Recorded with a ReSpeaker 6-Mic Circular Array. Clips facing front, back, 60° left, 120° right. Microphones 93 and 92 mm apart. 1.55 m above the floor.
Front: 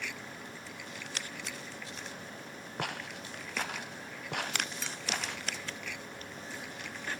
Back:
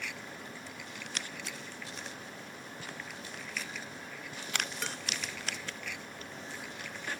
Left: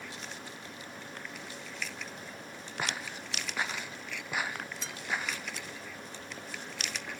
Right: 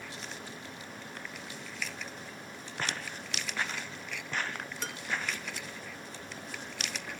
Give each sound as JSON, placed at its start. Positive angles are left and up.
{"t": 2.8, "sound": "footsteps", "azimuth_deg": -20}
{"t": 4.8, "sound": "dishes clattering", "azimuth_deg": -155}